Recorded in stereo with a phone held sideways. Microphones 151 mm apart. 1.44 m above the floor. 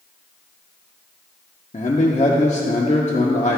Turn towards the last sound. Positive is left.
turn(degrees=50)  # may be behind; listen again after turning